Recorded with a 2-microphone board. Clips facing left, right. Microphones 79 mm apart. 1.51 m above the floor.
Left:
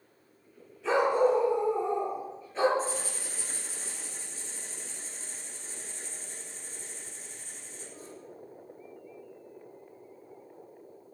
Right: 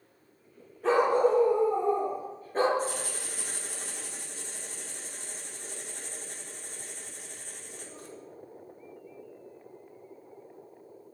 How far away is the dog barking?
About 9 m.